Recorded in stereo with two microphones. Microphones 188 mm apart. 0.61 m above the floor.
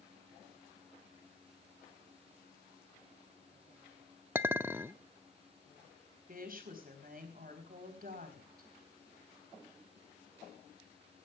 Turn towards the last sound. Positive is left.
turn(degrees=-50)  # may be behind; listen again after turning